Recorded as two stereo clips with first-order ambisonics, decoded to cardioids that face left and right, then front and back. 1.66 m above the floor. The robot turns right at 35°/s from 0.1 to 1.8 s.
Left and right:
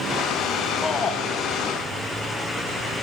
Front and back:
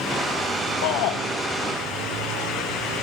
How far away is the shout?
About 0.9 m.